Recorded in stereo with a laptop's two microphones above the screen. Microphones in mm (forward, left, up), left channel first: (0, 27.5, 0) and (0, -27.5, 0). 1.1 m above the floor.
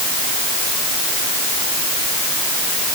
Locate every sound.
Only background noise.